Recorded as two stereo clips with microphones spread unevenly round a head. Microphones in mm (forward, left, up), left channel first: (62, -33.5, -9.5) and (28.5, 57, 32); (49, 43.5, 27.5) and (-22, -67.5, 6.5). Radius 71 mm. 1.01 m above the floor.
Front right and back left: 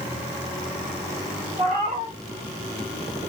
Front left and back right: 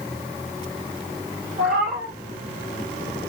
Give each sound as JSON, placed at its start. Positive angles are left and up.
{"t": 1.6, "sound": "a cat meowing", "azimuth_deg": 150, "distance_m": 1.7}